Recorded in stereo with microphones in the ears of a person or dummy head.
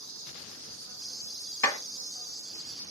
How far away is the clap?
About 1.6 m.